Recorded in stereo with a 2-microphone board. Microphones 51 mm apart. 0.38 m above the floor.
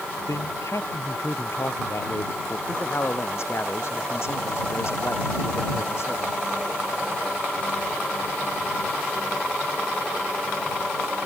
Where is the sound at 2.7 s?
60° left (ahead or behind).